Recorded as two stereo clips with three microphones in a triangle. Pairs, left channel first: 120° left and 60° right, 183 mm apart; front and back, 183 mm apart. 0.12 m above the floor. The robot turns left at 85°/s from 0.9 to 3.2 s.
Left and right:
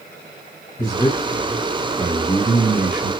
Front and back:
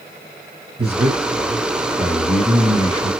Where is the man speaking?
175° left, 1.9 m; by 3.1 s 15° right, 1.9 m.